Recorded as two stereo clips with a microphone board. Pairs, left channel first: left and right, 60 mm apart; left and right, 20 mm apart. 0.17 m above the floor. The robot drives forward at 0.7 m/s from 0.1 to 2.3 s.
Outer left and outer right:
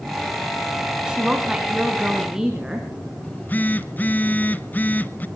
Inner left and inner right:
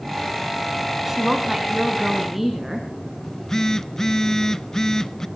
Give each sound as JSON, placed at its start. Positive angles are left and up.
{"t": 1.1, "sound": "a woman speaking", "side_deg": -15, "distance_m": 1.3}
{"t": 3.2, "sound": "a phone buzzing", "side_deg": 30, "distance_m": 0.5}